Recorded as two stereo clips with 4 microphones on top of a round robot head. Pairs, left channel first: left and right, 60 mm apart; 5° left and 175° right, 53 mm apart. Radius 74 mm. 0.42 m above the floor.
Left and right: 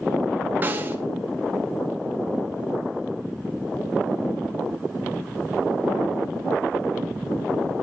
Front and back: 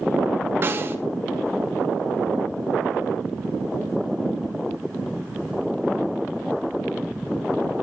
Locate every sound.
0.6 s a snare drum: 140° right, 1.9 m